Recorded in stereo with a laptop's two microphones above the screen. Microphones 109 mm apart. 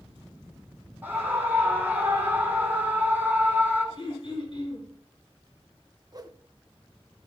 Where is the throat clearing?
55° left (ahead or behind), 5.5 m.